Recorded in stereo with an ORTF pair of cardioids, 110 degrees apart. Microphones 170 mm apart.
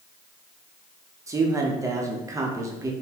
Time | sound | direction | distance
1.3 | a man speaking | 20° right | 0.7 m